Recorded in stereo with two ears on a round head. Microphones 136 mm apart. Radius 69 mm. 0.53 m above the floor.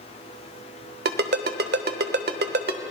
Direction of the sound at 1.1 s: 70° right (ahead or behind).